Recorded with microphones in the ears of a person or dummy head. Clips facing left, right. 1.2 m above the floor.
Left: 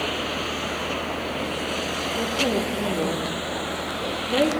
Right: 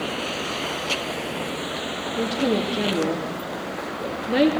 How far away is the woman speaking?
About 2.5 m.